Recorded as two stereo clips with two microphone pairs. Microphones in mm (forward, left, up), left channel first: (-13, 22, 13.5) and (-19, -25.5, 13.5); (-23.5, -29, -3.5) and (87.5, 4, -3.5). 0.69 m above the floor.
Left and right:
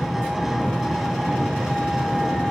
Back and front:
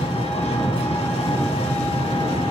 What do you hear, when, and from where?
0.0 s an engine running: 175° left, 3.5 m